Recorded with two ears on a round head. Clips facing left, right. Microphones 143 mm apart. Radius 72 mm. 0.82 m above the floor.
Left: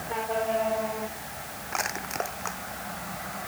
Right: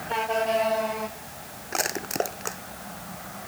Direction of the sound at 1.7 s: 40° right (ahead or behind).